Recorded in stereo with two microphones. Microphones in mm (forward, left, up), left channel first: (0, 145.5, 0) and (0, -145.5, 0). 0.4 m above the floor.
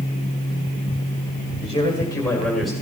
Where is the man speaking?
20° left (ahead or behind), 2 m; by 2.7 s centre (ahead or behind), 1.9 m.